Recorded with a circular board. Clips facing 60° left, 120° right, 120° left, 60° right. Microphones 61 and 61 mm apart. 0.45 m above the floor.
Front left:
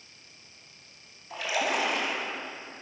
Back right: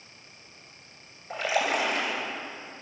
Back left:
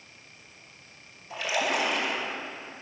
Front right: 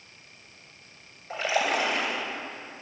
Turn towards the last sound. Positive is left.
turn(degrees=-100)